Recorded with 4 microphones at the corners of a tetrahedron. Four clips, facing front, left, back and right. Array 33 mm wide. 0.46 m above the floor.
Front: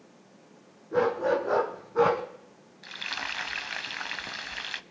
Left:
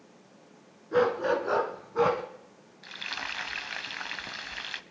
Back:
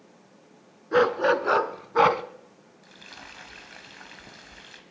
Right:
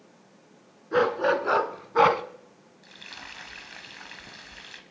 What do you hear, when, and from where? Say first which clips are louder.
0.9 s a dog barking: right 2 dB, back 4 dB; 160° right, 1.7 m; by 2.2 s 130° right, 1.1 m
2.8 s frying: left 7 dB, front 12 dB; 30° left, 0.7 m